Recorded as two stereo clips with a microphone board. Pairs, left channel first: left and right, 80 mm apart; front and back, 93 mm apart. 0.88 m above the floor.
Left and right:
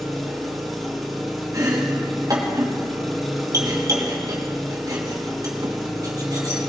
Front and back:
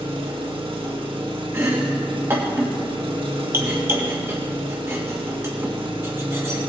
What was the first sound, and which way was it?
An engine running, straight behind.